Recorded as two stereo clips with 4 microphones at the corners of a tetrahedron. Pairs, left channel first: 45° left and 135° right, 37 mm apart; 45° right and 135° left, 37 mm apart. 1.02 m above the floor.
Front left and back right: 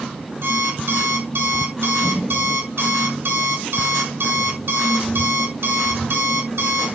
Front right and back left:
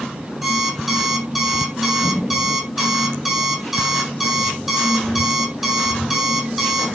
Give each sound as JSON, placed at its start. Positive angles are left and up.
{"t": 0.4, "sound": "an alarm clock", "azimuth_deg": -145, "distance_m": 4.0}